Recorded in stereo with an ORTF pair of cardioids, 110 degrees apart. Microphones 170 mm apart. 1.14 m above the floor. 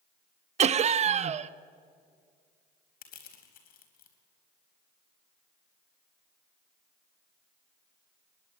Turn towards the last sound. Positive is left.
turn(degrees=60)